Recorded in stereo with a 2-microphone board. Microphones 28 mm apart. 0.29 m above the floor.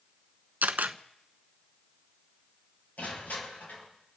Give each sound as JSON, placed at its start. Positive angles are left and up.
{"t": 0.6, "sound": "a camera shutter", "side_deg": -80, "distance_m": 0.8}
{"t": 3.0, "sound": "crushing", "side_deg": 65, "distance_m": 6.5}